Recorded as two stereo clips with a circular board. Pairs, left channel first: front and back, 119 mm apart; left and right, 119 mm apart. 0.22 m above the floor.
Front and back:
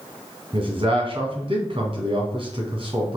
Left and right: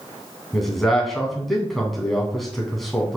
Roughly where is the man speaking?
Behind.